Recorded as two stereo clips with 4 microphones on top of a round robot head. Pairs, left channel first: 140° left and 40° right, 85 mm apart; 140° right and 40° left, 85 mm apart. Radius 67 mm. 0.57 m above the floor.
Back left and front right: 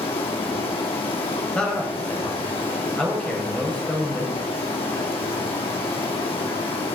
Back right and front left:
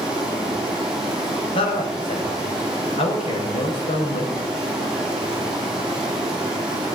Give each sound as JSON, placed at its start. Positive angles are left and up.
{"t": 0.0, "sound": "running water", "azimuth_deg": 125, "distance_m": 4.0}
{"t": 1.6, "sound": "a man speaking", "azimuth_deg": -140, "distance_m": 3.5}